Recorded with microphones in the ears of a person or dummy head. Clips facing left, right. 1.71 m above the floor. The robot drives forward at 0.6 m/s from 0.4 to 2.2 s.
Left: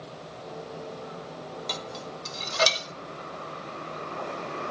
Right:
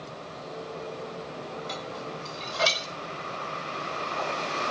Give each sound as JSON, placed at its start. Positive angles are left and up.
{"t": 1.7, "sound": "dishes clattering", "side_deg": 55, "distance_m": 1.6}